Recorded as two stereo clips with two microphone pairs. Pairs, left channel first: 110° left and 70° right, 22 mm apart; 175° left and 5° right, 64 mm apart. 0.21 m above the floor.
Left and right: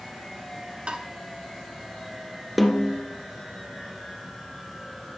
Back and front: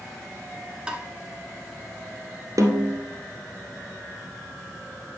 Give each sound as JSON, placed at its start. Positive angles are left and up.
{"t": 0.9, "sound": "tapping", "azimuth_deg": -80, "distance_m": 1.0}
{"t": 2.6, "sound": "a snare drum", "azimuth_deg": 15, "distance_m": 1.7}